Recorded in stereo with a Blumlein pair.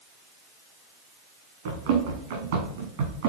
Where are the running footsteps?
55° right, 4 m; by 3.3 s 50° right, 3 m.